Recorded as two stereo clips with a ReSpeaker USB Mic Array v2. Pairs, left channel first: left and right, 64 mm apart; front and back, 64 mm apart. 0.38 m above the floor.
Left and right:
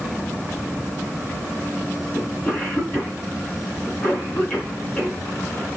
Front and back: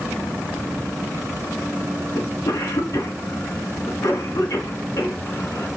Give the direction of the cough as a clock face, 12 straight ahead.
11 o'clock.